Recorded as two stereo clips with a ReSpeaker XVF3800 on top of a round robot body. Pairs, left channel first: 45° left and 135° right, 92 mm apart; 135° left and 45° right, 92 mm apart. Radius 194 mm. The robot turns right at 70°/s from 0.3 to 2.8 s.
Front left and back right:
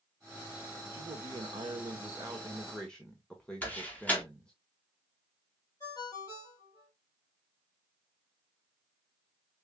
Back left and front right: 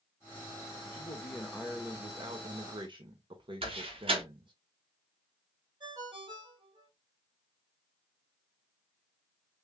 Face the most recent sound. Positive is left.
turn(degrees=-10)